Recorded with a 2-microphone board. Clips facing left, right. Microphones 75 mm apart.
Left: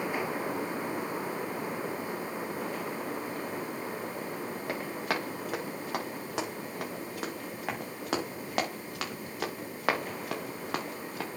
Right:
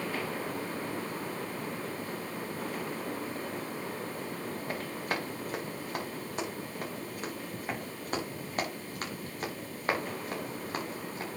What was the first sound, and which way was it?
Running footsteps, 70° left (ahead or behind).